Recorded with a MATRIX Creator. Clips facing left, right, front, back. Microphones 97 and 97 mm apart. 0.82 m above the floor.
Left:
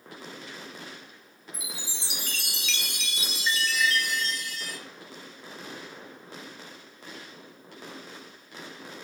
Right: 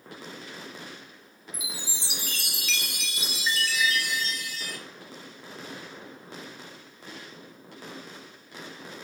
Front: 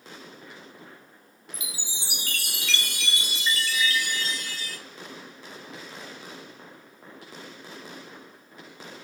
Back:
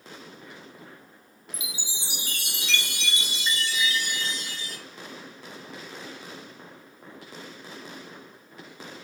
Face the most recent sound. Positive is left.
turn(degrees=-175)